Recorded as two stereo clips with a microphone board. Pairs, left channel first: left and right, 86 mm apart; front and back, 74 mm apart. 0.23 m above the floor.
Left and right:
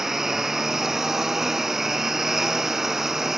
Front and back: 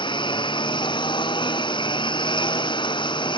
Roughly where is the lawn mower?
Ahead.